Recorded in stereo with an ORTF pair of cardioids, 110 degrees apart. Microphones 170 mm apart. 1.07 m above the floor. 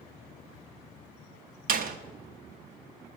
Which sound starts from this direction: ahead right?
A door slam, at 1.7 s.